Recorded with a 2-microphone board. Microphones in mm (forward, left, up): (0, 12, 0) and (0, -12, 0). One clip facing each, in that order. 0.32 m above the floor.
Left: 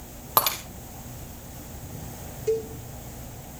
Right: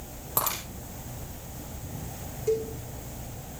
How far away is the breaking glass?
About 3 m.